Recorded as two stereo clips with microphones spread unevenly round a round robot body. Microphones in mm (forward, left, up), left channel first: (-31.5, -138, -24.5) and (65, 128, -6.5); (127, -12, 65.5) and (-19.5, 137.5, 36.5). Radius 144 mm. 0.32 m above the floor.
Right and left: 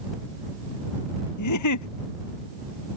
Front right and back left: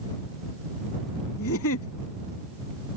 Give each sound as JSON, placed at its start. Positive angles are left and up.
{"t": 1.4, "sound": "a giggle", "azimuth_deg": -85}